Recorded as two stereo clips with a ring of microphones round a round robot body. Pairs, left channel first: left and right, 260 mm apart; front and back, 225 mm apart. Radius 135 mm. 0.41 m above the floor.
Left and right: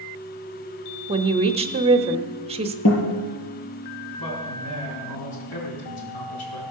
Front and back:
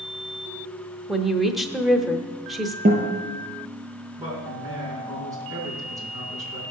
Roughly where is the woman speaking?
Right.